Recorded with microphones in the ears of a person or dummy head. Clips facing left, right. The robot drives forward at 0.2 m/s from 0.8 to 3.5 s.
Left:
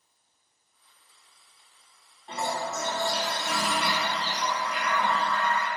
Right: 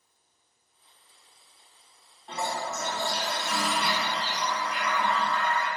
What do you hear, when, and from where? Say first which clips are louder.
2.3 s a toilet flushing: left 1 dB; 5° left (ahead or behind), 0.5 m